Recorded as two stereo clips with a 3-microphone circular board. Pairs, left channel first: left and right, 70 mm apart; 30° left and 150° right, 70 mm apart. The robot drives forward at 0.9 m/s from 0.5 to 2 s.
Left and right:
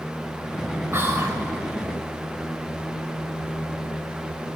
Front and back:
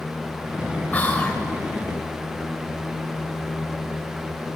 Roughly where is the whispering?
Ahead right.